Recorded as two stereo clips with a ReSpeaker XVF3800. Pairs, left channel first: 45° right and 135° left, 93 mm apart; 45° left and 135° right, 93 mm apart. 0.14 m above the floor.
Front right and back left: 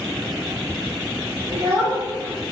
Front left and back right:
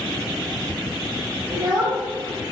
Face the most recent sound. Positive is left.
turn(degrees=180)